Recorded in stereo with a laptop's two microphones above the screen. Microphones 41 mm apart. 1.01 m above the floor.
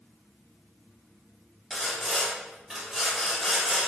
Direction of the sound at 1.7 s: 10° right (ahead or behind).